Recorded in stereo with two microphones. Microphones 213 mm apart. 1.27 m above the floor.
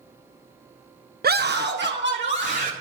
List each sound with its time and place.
1.2 s a scream: 45° right (ahead or behind), 0.6 m; by 2.7 s 55° right (ahead or behind), 2 m